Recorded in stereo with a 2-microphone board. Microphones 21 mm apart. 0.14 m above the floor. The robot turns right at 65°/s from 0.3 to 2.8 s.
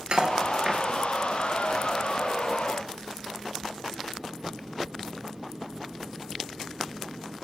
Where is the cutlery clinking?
50° right (ahead or behind), 1.6 m; by 0.8 s 20° right (ahead or behind), 1.6 m.